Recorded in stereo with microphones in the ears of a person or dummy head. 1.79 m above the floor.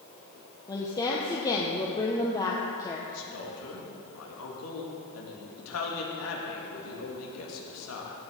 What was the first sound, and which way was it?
A woman speaking, 20° left (ahead or behind).